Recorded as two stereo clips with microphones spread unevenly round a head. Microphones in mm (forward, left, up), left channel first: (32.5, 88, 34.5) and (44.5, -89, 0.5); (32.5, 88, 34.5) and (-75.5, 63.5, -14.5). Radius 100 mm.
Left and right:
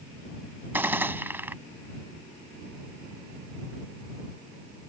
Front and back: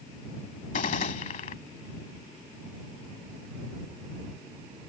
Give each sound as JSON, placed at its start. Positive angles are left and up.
{"t": 0.7, "sound": "a gunshot", "azimuth_deg": -5}